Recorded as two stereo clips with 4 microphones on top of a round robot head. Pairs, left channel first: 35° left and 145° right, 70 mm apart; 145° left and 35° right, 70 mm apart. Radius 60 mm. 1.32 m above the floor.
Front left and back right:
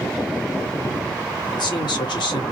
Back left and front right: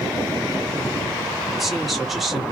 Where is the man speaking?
55° left, 1.9 m.